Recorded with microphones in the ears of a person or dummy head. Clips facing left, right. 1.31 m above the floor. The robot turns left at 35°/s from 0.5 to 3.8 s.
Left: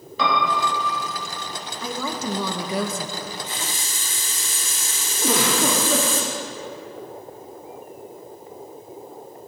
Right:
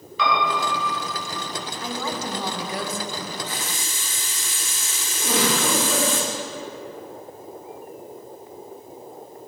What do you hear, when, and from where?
0.2 s a piano: 35° left (ahead or behind), 2.5 m; by 1.0 s 20° left (ahead or behind), 2.5 m
1.8 s a woman speaking: 100° left, 1.1 m; by 3.1 s 55° left, 1.1 m
3.2 s a running tap: 15° left (ahead or behind), 1.2 m; by 6.2 s 35° left (ahead or behind), 1.2 m
5.2 s a giggle: 55° left (ahead or behind), 2 m